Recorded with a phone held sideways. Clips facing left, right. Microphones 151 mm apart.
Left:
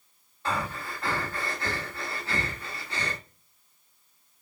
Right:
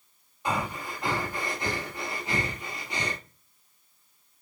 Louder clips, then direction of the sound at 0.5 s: Right 1 dB; 15° right (ahead or behind).